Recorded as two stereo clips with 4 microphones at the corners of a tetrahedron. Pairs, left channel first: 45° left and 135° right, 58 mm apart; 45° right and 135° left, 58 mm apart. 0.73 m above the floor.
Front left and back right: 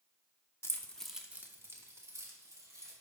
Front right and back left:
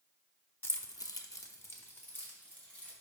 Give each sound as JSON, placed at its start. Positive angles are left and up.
{"t": 0.6, "sound": "keys jangling", "azimuth_deg": 0, "distance_m": 0.9}